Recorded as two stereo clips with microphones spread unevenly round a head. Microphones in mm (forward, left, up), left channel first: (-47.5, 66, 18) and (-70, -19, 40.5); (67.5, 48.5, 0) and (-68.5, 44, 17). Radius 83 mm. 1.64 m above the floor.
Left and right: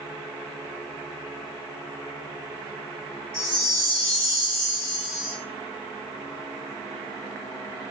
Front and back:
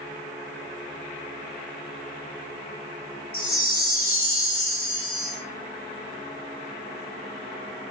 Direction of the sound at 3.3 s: 20° right.